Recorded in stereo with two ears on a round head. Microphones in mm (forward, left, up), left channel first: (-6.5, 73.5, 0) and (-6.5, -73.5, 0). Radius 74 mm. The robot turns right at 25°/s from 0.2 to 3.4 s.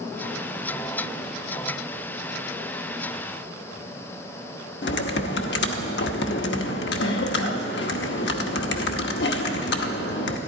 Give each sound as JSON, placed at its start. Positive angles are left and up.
{"t": 4.8, "sound": "typing on a keyboard", "side_deg": 75, "distance_m": 0.9}